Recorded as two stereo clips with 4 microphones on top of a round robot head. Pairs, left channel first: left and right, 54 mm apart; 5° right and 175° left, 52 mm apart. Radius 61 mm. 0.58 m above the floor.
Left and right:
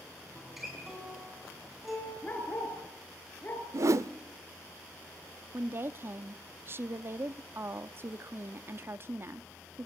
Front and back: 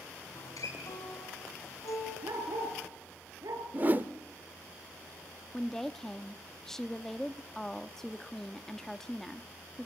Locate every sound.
0.3 s a guitar: 5° right, 6.5 m
2.2 s a dog barking: 150° left, 4 m
3.7 s a whoosh: 125° right, 0.7 m
5.5 s a woman speaking: 85° right, 0.9 m